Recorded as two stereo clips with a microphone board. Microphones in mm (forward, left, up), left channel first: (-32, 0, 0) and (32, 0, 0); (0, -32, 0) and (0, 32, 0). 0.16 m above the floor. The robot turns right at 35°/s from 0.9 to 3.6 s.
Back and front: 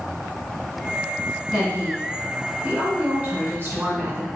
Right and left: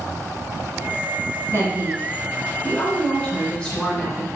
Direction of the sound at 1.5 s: 100° right.